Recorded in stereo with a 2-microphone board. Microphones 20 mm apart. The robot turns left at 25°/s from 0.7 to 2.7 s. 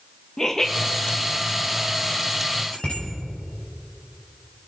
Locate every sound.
0.4 s laughter: 30° left (ahead or behind), 1.6 m; by 0.7 s 25° left (ahead or behind), 1.6 m
2.7 s a bicycle bell: 80° left, 5.5 m